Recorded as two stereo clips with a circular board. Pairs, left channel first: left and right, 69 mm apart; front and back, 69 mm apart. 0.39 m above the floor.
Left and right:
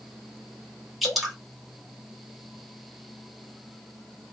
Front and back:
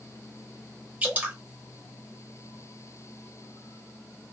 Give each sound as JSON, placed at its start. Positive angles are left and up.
{"t": 1.0, "sound": "dripping", "azimuth_deg": 180, "distance_m": 1.3}